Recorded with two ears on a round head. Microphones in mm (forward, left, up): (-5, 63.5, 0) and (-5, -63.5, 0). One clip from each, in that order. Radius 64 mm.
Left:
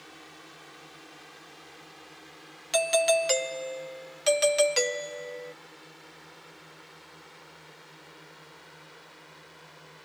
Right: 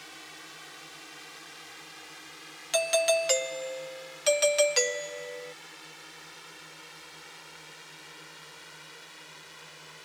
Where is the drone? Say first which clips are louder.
Right 3 dB; 40° right (ahead or behind); by 10.1 s 50° right (ahead or behind).